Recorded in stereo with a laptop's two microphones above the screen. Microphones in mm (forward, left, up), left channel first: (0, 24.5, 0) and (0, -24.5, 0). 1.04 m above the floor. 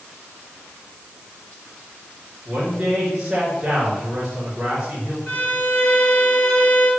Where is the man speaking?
5° right (ahead or behind), 3 m.